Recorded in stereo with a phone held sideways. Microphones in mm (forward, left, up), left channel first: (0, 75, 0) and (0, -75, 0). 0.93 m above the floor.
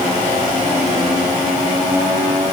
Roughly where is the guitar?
I don't hear a guitar.